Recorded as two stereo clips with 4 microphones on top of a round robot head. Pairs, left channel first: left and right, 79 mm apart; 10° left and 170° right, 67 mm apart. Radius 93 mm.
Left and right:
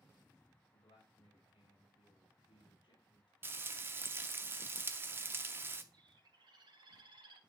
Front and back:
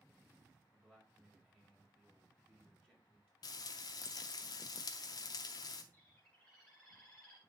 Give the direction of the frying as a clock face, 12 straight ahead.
1 o'clock.